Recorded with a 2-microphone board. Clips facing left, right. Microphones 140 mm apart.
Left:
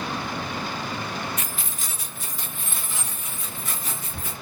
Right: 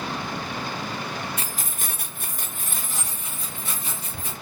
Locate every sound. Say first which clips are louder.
1.4 s keys jangling: even; 30° right (ahead or behind), 0.6 m